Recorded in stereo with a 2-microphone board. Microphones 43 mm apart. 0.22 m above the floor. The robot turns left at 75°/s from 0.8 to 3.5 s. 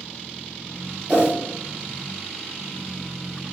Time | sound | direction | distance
1.1 | a whoosh | 30° right (ahead or behind) | 1.8 m